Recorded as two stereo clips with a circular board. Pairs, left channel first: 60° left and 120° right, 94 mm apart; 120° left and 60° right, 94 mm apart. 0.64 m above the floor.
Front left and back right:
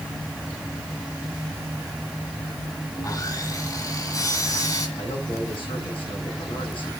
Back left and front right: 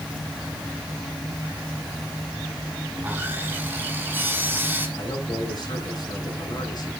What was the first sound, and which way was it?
Sawing, 10° left.